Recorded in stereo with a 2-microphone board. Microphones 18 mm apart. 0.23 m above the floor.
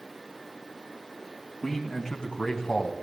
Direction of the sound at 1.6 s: 25° left (ahead or behind).